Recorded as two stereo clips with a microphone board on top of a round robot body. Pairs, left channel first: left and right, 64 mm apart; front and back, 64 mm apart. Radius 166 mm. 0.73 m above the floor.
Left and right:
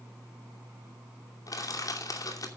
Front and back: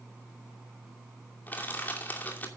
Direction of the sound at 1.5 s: 60° left.